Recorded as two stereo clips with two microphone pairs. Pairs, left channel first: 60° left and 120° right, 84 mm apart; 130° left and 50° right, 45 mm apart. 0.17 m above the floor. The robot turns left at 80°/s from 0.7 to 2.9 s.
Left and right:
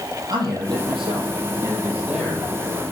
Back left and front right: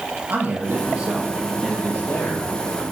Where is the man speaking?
85° right, 5 m; by 2.8 s 105° left, 5 m.